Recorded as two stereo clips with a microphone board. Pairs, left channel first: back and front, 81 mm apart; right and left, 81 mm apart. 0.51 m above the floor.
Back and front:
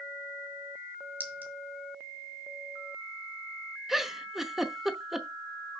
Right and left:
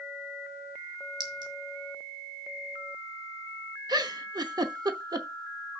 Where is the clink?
65° left, 2 m.